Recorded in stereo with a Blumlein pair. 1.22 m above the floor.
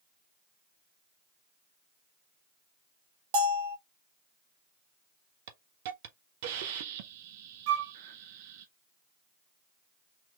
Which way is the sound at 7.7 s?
50° right.